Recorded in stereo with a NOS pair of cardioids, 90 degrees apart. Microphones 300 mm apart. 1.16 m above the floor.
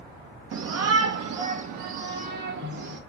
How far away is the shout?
About 0.7 m.